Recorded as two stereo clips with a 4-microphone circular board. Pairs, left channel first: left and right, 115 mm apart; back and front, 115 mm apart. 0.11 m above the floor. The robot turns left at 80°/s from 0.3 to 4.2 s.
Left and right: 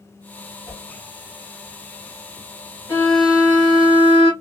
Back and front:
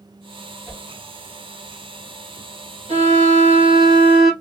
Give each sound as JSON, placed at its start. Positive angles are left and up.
{"t": 0.7, "sound": "a whoosh", "azimuth_deg": -95, "distance_m": 1.7}
{"t": 2.9, "sound": "a violin", "azimuth_deg": 25, "distance_m": 1.0}